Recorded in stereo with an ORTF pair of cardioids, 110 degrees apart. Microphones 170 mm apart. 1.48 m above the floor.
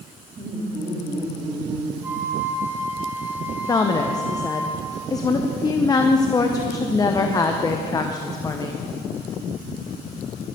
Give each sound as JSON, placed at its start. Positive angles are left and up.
{"t": 0.4, "sound": "laughter", "azimuth_deg": -25, "distance_m": 3.5}
{"t": 2.0, "sound": "a flute", "azimuth_deg": -15, "distance_m": 1.6}
{"t": 3.7, "sound": "a woman speaking", "azimuth_deg": 20, "distance_m": 0.7}